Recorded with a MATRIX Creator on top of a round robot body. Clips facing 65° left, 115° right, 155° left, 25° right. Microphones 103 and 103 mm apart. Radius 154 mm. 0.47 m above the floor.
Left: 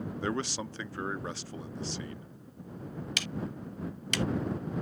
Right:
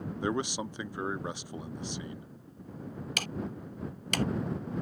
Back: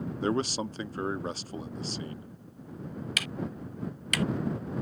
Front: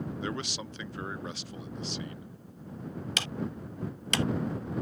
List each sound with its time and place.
0.2 s a man speaking: straight behind
3.2 s ticking: 80° right